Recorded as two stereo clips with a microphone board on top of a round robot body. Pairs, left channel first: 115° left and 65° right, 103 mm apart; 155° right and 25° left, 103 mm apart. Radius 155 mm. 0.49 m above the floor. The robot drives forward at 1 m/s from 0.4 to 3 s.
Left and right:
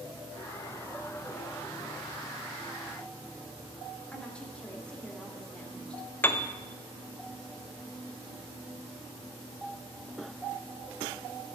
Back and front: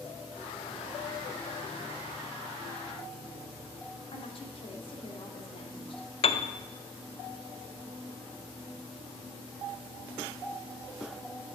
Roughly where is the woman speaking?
Behind.